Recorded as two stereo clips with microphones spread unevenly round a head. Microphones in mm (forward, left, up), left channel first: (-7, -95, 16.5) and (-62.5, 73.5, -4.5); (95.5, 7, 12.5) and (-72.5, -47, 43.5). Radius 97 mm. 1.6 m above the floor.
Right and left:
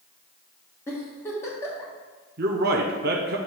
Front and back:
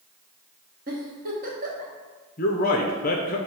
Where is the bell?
No bell in this recording.